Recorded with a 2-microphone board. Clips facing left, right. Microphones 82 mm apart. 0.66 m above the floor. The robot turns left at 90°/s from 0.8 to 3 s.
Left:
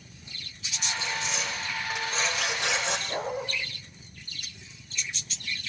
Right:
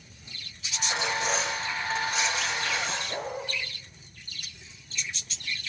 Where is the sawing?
100° right, 5.5 m; by 3.0 s 75° left, 5.5 m.